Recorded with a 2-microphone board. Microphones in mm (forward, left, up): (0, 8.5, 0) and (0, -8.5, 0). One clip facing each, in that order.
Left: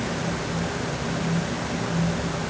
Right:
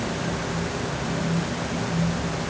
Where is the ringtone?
No ringtone in this recording.